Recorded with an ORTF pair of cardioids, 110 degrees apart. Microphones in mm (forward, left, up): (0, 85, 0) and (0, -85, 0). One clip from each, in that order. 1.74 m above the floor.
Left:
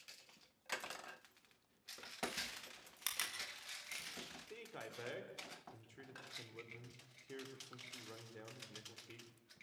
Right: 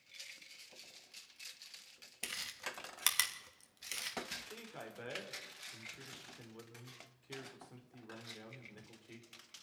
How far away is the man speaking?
About 4.5 m.